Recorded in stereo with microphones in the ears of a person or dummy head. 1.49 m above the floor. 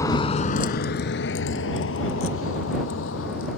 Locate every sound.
0.0 s a vehicle: 20° left (ahead or behind); by 3.6 s 85° left